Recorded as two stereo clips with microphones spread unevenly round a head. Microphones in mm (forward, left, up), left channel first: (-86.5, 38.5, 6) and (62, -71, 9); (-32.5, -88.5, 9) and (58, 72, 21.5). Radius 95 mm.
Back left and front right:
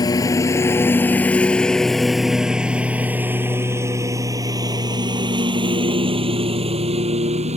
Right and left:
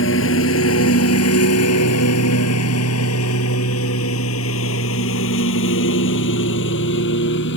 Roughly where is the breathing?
I don't hear breathing.